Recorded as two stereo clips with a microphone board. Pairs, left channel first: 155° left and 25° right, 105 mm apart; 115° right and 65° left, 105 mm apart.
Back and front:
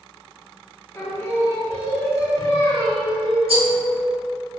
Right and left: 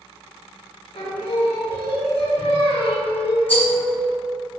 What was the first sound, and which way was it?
Singing, 135° right.